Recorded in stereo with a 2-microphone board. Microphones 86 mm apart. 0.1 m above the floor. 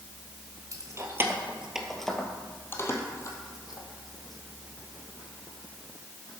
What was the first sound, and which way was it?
Keys jangling, 40° right (ahead or behind).